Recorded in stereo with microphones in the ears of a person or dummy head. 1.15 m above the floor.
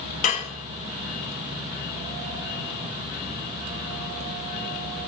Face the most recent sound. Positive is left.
turn(degrees=35)  # may be behind; listen again after turning